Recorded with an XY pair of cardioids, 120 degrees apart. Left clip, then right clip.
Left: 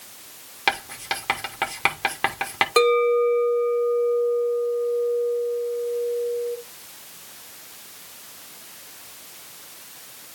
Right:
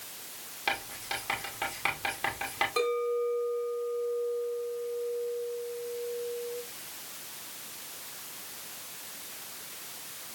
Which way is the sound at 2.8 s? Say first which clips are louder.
Left 13 dB; 70° left.